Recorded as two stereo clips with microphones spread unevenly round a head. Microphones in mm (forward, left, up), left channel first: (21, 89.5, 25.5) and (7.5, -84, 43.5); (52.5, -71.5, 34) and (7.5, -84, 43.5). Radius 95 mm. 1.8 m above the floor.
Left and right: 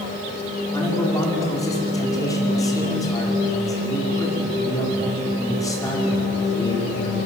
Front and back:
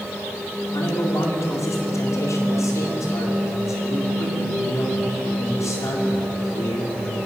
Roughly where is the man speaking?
Ahead.